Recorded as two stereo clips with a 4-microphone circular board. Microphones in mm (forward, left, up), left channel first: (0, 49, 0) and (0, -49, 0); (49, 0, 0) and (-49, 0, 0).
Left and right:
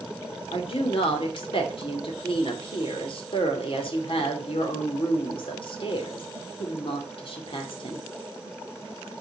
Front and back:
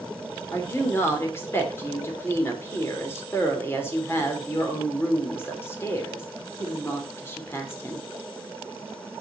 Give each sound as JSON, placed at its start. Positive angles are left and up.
{"t": 0.5, "sound": "a woman speaking", "azimuth_deg": 65, "distance_m": 2.5}